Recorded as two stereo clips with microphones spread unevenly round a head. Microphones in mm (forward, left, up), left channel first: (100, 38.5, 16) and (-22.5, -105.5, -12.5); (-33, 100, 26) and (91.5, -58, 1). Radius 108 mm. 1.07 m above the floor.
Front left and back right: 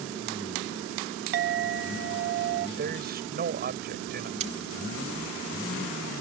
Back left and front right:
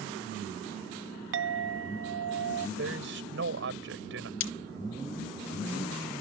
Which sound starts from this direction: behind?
Cutlery clinking, at 4.4 s.